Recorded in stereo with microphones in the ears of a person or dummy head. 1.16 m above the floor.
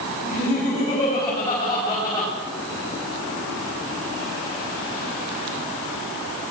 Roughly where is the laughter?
Left.